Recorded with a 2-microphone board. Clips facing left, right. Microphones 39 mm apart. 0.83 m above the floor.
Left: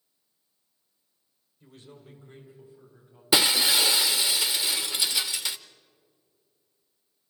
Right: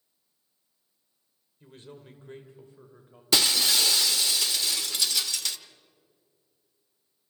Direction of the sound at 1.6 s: 30° right (ahead or behind).